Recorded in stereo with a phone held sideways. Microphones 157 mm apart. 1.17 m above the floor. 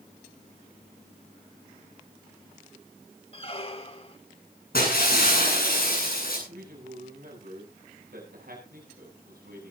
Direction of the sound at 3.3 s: 40° left (ahead or behind).